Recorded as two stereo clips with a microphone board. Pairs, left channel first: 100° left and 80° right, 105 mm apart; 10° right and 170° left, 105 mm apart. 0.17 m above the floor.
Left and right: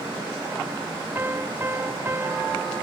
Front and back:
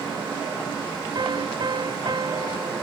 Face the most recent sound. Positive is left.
turn(degrees=-145)